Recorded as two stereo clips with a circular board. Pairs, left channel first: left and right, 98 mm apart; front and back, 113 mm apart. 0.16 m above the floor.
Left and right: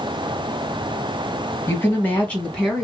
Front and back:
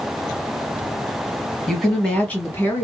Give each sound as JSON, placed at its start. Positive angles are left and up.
{"t": 1.7, "sound": "a woman speaking", "azimuth_deg": 90, "distance_m": 1.4}